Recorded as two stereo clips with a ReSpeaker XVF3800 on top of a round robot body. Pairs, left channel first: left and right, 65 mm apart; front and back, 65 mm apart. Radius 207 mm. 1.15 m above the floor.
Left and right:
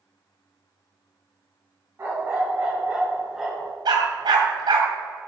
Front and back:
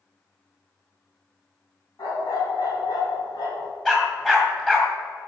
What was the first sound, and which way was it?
A dog barking, 30° right.